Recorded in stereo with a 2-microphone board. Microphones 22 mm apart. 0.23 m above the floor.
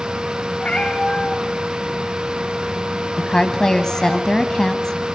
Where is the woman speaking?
30° left (ahead or behind), 1.3 m.